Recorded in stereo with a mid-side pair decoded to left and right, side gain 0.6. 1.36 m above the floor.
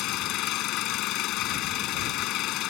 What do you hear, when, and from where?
0.0 s an engine running: 65° left